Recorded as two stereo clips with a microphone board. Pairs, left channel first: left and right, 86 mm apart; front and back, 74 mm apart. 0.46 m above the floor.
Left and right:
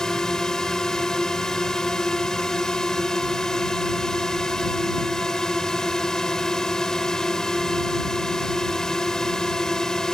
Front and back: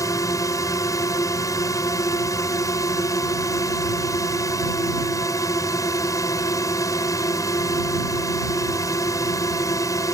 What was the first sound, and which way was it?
A drone, 10° left.